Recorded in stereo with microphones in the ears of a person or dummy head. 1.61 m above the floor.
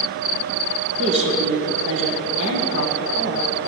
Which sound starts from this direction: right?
A woman speaking, at 1.0 s.